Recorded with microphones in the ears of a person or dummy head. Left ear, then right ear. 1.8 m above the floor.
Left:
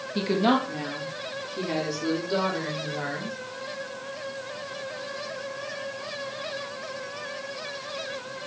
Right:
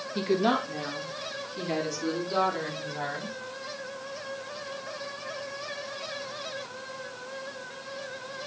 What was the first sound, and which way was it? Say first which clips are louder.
A woman speaking: left 2 dB; 5° right (ahead or behind).